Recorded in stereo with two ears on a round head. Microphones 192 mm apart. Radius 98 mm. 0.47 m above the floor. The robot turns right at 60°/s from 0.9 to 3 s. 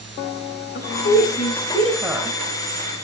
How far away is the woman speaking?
About 2.5 m.